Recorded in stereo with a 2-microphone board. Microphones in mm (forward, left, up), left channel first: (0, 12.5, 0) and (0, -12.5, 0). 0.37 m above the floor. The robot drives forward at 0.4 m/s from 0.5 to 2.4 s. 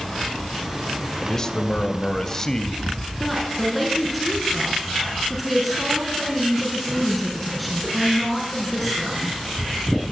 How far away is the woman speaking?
About 5.5 m.